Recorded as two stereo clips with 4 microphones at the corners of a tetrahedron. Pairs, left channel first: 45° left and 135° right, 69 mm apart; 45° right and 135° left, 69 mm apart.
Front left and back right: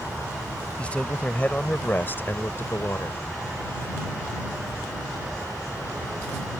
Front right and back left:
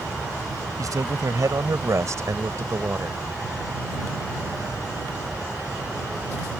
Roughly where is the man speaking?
Behind left.